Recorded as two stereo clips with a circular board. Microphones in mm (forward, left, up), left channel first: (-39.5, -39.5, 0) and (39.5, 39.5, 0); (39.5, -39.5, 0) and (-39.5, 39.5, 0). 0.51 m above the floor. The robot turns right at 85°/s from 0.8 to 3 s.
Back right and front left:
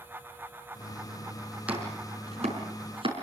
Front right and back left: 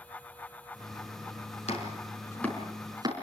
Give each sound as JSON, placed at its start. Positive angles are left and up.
{"t": 1.7, "sound": "chopping", "azimuth_deg": -35, "distance_m": 5.5}